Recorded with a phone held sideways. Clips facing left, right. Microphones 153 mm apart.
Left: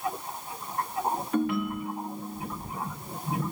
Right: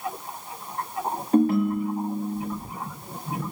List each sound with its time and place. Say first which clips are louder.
1.3 s a ringtone: right 10 dB; 35° right (ahead or behind), 2 m